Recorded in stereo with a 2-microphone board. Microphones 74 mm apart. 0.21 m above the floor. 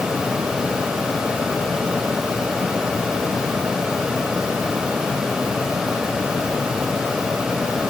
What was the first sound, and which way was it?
Only background noise.